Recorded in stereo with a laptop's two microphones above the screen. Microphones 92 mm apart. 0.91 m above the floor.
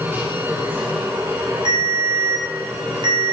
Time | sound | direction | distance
0.0 | a machine running | 25° right (ahead or behind) | 3.5 m
1.6 | a ringtone | 60° right (ahead or behind) | 4.5 m